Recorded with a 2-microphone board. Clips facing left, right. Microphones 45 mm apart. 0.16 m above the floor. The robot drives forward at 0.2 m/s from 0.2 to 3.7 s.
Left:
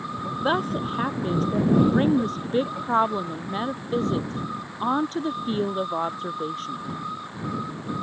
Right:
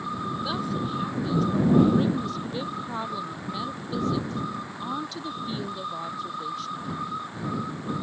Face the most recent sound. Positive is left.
turn(degrees=40)  # may be behind; listen again after turning